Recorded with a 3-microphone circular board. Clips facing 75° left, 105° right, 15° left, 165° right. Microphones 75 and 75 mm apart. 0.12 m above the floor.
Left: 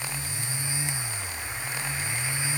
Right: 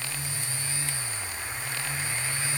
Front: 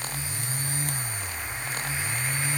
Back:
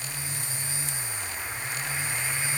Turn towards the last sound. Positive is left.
No sound to turn to.